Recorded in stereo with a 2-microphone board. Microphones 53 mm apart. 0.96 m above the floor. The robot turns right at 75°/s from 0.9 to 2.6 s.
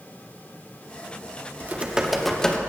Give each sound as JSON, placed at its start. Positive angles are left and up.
{"t": 1.6, "sound": "typing on a keyboard", "azimuth_deg": -50, "distance_m": 1.1}